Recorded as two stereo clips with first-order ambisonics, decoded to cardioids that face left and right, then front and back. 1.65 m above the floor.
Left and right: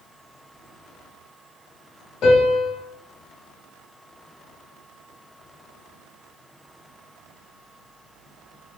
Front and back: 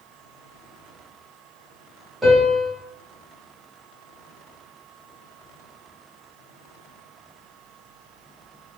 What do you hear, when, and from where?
2.2 s a piano: 100° left, 1.5 m